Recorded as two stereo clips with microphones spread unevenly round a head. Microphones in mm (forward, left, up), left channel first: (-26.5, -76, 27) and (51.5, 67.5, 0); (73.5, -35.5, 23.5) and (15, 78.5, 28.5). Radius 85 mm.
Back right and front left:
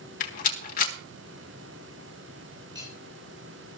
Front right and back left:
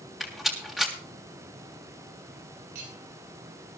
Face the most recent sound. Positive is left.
turn(degrees=130)